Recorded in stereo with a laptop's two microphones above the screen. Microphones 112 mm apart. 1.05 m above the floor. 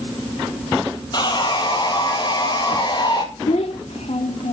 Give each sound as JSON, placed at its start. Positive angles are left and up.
{"t": 1.1, "sound": "sawing", "side_deg": 40, "distance_m": 1.7}
{"t": 3.5, "sound": "a child speaking", "side_deg": 75, "distance_m": 0.6}